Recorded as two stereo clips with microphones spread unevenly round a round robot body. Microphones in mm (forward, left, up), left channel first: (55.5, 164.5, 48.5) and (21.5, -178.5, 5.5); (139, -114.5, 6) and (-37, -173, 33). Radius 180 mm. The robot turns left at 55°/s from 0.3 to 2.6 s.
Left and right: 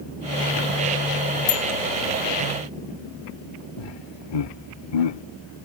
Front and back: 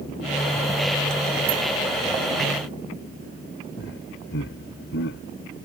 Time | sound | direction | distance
1.5 | a bicycle bell | 155° left | ?
3.8 | laughter | 65° left | ?